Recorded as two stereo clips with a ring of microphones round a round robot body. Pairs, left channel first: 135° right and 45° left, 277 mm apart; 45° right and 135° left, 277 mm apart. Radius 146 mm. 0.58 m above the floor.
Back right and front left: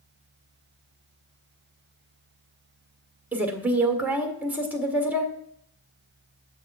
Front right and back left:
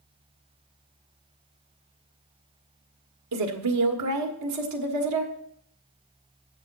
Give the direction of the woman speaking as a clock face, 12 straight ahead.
8 o'clock.